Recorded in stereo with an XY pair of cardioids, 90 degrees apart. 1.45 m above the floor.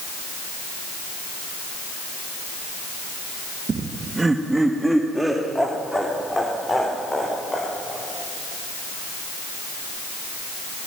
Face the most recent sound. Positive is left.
turn(degrees=20)